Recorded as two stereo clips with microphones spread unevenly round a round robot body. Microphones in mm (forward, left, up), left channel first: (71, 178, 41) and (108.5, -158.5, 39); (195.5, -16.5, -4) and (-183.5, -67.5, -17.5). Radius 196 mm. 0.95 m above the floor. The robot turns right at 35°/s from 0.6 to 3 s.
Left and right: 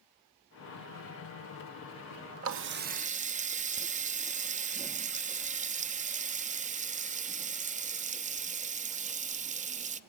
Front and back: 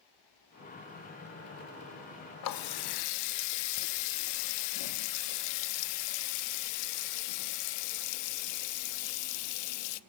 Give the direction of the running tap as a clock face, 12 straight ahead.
1 o'clock.